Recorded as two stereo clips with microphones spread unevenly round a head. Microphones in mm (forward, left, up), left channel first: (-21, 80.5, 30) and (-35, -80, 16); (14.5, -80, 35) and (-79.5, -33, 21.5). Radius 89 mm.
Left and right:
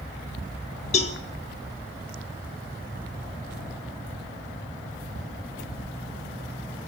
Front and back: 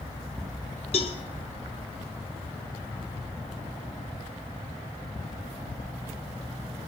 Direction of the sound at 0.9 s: 30° left.